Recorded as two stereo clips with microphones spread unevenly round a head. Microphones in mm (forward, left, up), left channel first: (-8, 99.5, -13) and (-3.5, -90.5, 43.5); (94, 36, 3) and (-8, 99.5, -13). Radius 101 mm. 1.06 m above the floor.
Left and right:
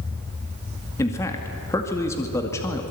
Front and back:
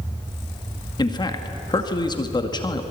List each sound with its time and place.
1.0 s a man speaking: 20° left, 2 m